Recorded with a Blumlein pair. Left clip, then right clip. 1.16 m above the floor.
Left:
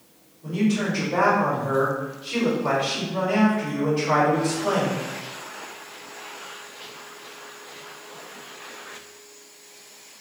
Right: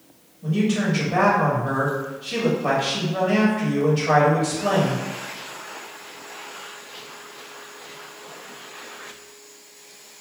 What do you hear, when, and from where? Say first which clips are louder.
0.4 s a man speaking: right 1 dB; 55° right, 1.6 m